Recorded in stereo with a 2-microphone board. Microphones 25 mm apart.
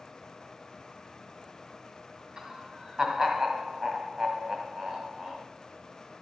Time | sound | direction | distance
2.4 | laughter | 30° right (ahead or behind) | 1.8 m